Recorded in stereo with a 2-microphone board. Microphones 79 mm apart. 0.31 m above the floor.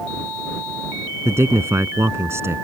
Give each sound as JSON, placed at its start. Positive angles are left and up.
{"t": 1.2, "sound": "a man speaking", "side_deg": -35}